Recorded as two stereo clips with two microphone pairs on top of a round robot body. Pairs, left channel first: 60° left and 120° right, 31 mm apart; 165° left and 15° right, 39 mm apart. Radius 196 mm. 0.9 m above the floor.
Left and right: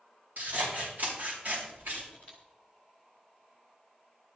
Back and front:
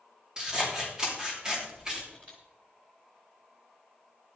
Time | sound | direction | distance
0.4 | scissors | 90° right | 3 m
2.1 | a camera shutter | 65° right | 0.5 m